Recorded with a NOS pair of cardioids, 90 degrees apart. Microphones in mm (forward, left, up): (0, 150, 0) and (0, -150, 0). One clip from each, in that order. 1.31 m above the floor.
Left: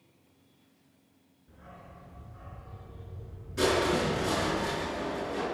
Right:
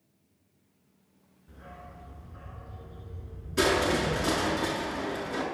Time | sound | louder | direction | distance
1.5 | a dog barking | right 3 dB | 35° right | 6 m
3.6 | crushing | right 1 dB | 50° right | 8 m